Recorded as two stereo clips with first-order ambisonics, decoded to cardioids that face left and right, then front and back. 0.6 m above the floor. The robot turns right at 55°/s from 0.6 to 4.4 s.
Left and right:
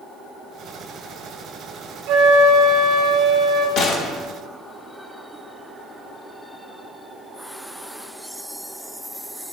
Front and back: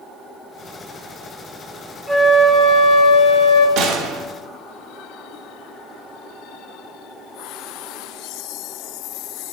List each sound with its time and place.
2.1 s a flute: 85° right, 1.4 m; by 3.7 s straight ahead, 1.4 m
3.8 s a gunshot: 140° left, 0.7 m; by 4.3 s 165° left, 0.7 m